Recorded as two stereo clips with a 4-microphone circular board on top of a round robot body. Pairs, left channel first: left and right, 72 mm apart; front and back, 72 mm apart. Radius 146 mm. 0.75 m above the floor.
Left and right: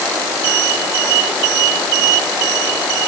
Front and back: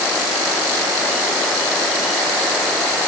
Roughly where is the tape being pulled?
No tape being pulled in this recording.